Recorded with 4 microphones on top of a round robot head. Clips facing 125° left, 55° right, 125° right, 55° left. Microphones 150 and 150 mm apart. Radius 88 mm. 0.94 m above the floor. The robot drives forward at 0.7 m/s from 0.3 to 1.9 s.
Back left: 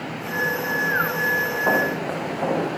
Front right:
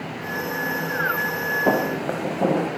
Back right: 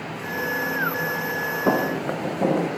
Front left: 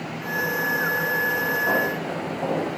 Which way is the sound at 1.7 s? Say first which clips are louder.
Front right 2 dB, back right 6 dB; 115° right.